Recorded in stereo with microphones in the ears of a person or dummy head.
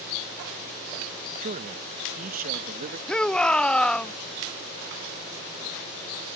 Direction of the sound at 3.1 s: 5° left (ahead or behind).